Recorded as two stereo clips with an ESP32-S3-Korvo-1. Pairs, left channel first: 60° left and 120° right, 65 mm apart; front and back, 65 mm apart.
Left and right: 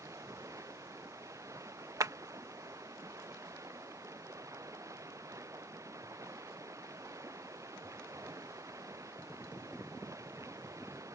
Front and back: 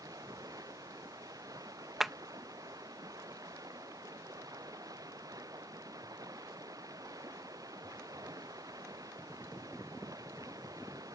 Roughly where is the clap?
Right.